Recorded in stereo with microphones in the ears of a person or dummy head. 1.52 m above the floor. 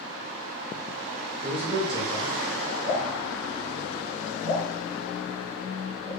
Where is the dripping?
40° left (ahead or behind), 1.2 m.